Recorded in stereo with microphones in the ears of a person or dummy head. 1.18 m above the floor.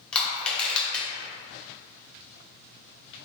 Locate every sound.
0.1 s crushing: 5° left (ahead or behind), 0.7 m